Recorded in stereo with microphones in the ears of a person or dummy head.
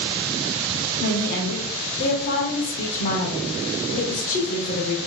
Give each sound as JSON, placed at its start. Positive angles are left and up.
{"t": 1.0, "sound": "a woman speaking", "side_deg": 45, "distance_m": 0.8}